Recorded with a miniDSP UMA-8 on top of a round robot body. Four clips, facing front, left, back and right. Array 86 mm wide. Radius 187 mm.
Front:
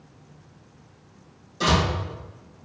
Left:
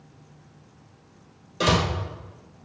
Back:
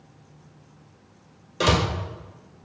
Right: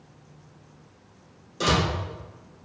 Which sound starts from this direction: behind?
A door slam, at 1.6 s.